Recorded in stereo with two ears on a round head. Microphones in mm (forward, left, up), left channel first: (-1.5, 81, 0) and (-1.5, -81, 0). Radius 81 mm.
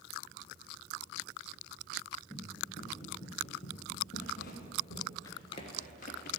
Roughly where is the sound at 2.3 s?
Left.